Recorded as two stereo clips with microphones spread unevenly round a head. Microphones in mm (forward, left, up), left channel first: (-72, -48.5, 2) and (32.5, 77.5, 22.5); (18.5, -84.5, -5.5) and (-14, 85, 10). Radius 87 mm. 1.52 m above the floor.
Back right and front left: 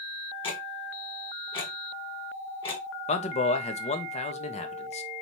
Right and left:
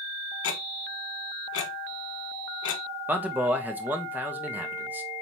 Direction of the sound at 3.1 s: Straight behind.